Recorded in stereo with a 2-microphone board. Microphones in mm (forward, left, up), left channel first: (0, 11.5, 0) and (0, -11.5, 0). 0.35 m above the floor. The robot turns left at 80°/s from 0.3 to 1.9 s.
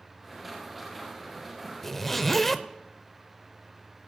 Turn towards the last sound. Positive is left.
turn(degrees=10)  # may be behind; listen again after turning